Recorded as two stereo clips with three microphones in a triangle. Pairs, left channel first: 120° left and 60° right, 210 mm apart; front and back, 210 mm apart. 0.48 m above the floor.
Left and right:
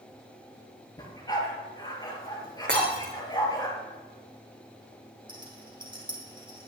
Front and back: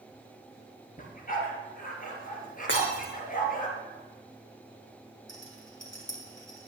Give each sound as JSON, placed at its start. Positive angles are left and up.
{"t": 1.0, "sound": "a dog barking", "azimuth_deg": 50, "distance_m": 3.0}
{"t": 2.7, "sound": "breaking glass", "azimuth_deg": -25, "distance_m": 3.5}
{"t": 5.3, "sound": "a rattle", "azimuth_deg": 5, "distance_m": 3.5}